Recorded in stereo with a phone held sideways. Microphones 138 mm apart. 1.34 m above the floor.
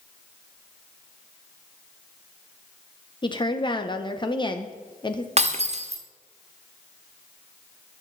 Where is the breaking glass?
50° right (ahead or behind), 1.3 m.